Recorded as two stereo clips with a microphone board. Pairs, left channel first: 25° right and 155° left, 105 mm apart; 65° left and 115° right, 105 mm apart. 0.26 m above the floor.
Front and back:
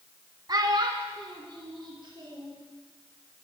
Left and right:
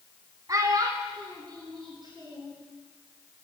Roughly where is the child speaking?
Behind.